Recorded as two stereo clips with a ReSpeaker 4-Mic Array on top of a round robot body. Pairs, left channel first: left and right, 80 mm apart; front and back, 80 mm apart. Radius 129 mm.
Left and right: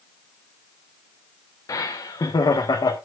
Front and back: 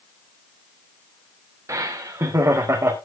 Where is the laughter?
130° left, 1.2 m; by 3.0 s 125° left, 1.9 m.